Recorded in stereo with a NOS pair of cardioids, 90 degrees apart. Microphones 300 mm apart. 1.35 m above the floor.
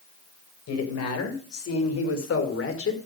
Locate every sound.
0.7 s a woman speaking: 60° left, 7 m; by 3.0 s 45° left, 5 m